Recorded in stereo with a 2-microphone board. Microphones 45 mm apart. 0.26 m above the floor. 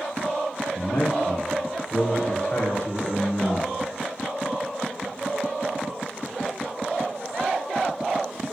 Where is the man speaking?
45° left (ahead or behind), 4 m; by 3.7 s 20° left (ahead or behind), 2.5 m.